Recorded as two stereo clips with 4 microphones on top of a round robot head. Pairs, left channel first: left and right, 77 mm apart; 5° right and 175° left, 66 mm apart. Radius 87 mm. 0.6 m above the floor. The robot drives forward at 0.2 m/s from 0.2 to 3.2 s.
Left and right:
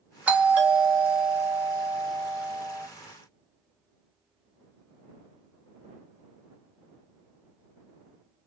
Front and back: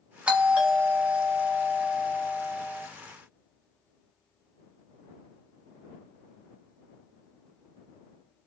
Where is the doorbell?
135° right, 1.0 m; by 2.9 s 160° right, 1.3 m.